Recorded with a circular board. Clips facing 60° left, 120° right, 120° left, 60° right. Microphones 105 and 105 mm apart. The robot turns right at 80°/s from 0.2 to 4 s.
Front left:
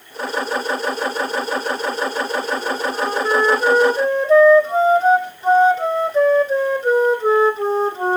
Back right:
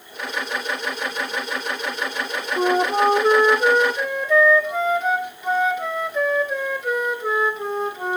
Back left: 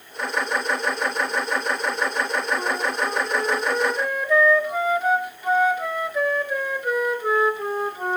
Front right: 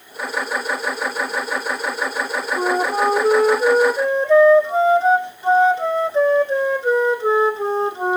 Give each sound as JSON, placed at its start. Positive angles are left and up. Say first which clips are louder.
{"t": 2.6, "sound": "a flute", "louder": "back right 4 dB, front right 6 dB", "azimuth_deg": -115, "distance_m": 1.0}